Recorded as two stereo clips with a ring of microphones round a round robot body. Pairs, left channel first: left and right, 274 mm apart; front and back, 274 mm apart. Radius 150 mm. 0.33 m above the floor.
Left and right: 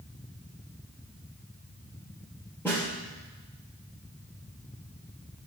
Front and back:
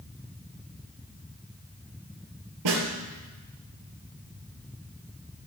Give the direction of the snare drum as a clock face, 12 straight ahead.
6 o'clock.